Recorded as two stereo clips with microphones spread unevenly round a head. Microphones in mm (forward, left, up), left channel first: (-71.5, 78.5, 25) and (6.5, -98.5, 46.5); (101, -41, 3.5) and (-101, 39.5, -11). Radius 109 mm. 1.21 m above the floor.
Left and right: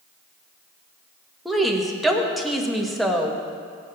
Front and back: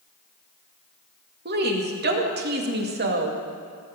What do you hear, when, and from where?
1.4 s a woman speaking: 160° right, 2 m